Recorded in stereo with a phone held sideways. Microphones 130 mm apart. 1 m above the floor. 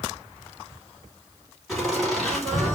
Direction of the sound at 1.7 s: 5° left (ahead or behind).